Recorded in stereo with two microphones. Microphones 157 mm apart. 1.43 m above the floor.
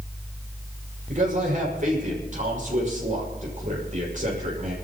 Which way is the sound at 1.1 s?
55° right (ahead or behind).